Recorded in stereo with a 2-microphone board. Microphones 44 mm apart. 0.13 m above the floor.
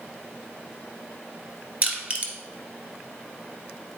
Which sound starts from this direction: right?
Crushing, at 1.8 s.